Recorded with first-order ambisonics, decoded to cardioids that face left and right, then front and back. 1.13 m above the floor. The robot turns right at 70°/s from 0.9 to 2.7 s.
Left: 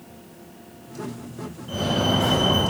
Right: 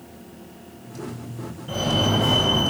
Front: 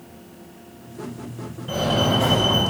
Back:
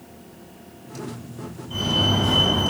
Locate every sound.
1.7 s a fire alarm: 10° right, 7.5 m; by 2.6 s 55° left, 7.5 m